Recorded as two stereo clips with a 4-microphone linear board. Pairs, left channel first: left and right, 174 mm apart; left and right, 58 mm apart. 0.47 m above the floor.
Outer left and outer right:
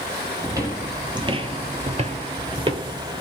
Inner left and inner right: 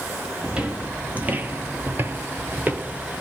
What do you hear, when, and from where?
0.4 s footsteps: 20° right (ahead or behind), 0.9 m; by 3.2 s 25° right (ahead or behind), 0.9 m